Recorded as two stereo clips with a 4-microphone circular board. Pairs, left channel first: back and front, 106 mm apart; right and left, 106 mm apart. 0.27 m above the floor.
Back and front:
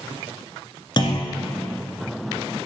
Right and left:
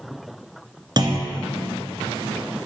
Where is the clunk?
135° left, 1.8 m.